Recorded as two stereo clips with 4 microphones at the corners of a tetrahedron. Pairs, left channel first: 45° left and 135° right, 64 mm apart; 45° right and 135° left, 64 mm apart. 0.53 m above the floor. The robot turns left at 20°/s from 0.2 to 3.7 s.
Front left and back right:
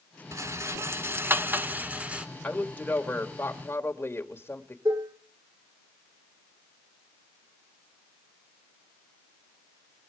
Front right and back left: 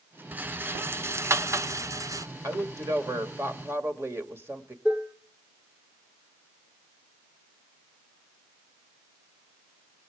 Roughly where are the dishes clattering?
Behind right.